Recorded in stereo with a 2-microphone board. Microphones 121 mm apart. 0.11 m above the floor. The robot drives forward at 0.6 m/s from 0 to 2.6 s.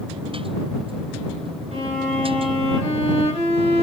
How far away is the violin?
About 2.5 m.